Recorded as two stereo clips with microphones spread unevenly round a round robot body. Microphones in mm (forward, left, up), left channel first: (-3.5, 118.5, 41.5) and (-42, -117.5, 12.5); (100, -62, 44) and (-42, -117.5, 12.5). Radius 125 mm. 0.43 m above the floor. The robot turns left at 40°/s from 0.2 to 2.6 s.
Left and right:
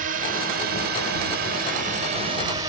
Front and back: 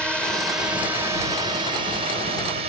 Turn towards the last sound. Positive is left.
turn(degrees=-165)